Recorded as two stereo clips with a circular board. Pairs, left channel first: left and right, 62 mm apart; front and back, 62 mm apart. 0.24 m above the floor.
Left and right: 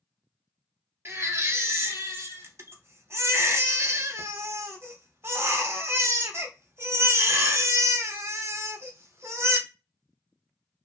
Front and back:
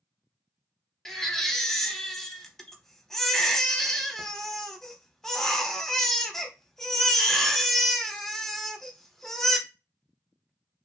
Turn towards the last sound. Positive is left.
turn(degrees=-80)